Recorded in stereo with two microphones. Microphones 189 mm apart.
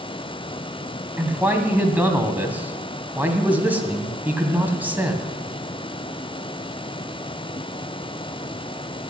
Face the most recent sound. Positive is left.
turn(degrees=-10)  # may be behind; listen again after turning